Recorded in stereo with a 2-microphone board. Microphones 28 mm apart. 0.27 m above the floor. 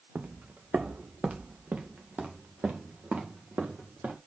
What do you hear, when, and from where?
0.1 s footsteps: 70° right (ahead or behind), 0.8 m; by 4.2 s 80° right, 4 m